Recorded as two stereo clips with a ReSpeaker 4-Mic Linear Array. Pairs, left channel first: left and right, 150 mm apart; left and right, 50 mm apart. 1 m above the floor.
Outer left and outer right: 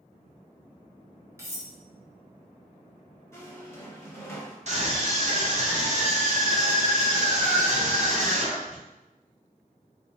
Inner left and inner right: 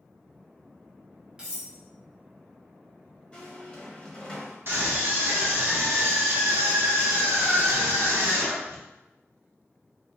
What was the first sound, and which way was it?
Cutlery clinking, 20° right (ahead or behind).